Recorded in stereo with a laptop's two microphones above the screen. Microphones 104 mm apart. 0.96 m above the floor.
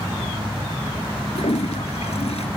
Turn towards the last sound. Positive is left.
turn(degrees=85)